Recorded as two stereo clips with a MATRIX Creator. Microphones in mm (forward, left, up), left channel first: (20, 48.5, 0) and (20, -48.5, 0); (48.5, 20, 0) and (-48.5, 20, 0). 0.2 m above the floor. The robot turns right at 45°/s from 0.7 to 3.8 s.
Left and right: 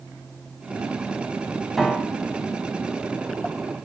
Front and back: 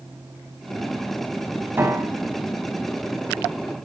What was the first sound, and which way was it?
A piano, straight behind.